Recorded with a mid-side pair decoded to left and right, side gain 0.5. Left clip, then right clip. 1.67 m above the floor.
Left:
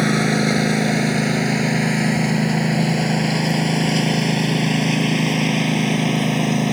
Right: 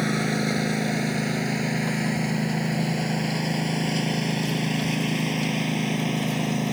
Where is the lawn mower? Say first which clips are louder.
Left 7 dB; 45° left.